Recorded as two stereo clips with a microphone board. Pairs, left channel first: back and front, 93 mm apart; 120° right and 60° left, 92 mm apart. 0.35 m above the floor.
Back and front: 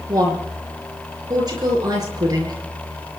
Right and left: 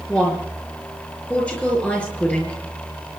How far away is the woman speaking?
About 7 m.